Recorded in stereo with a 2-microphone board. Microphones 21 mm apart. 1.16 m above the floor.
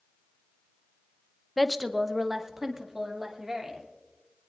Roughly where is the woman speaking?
Centre.